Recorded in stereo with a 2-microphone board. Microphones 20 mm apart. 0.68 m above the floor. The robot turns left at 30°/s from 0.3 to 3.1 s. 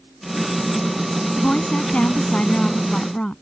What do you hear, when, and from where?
1.4 s a woman speaking: 90° left; by 3.4 s 40° left